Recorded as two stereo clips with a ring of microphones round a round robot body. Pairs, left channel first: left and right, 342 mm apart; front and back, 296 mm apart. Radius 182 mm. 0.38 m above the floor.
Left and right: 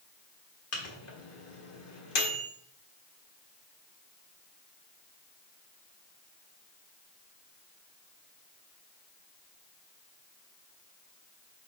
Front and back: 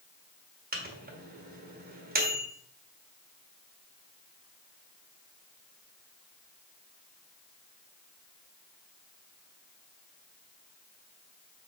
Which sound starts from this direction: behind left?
A microwave, at 0.7 s.